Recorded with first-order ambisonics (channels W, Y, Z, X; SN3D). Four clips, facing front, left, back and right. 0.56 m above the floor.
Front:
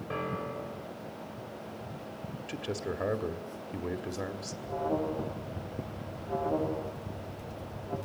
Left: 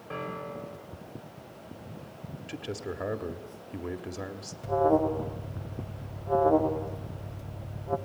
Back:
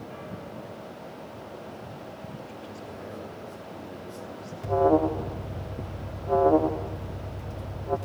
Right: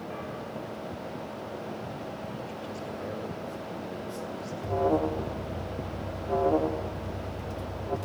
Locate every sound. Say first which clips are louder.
0.1 s a piano: left 5 dB, front 4 dB; 25° left, 1.5 m
2.5 s a man speaking: even, front 4 dB; 40° left, 1.9 m
4.6 s an alarm: left 2 dB, back 10 dB; 175° left, 1.2 m